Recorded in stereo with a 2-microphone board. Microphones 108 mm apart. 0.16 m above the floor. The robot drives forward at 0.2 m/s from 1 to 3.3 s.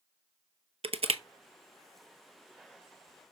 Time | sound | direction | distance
0.8 | crushing | 70° right (ahead or behind) | 0.7 m